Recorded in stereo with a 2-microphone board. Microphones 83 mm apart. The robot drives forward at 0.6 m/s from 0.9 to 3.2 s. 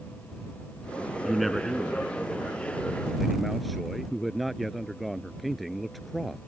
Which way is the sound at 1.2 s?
Centre (ahead or behind).